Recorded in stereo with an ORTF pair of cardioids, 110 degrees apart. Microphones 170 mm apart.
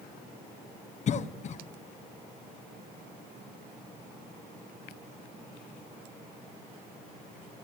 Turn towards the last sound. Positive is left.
turn(degrees=45)